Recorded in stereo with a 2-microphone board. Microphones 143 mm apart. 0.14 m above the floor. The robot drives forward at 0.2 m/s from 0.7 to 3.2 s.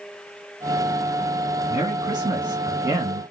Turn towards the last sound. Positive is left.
turn(degrees=-30)  # may be behind; listen again after turning